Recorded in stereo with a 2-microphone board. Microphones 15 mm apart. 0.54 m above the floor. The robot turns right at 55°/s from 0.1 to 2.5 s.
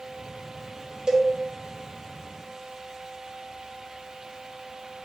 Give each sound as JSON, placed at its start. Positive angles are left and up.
{"t": 1.1, "sound": "a cowbell", "side_deg": -50, "distance_m": 0.8}